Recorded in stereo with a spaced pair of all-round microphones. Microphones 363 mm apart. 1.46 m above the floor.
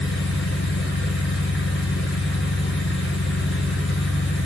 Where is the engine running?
30° left (ahead or behind), 7 m.